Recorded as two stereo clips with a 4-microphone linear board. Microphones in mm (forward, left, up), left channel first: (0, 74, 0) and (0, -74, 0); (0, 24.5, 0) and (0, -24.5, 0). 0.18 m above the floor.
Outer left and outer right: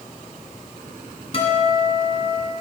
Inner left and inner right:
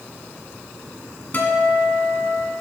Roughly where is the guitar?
Left.